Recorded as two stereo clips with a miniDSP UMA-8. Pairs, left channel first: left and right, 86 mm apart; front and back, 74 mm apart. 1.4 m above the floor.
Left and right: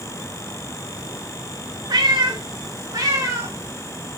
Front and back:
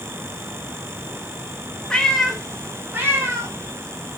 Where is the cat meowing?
75° right, 1.0 m; by 4.2 s 155° right, 1.5 m.